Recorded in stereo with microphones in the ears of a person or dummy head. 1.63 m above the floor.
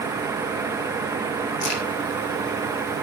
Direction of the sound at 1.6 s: 70° left (ahead or behind).